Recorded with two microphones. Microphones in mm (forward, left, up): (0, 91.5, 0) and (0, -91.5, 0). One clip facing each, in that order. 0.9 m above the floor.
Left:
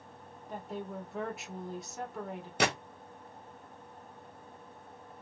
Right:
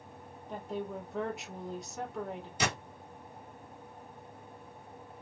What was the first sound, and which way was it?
A woman speaking, centre (ahead or behind).